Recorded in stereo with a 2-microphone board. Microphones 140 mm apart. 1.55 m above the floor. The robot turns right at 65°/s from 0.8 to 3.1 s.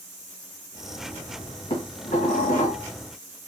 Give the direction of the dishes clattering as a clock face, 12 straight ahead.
10 o'clock.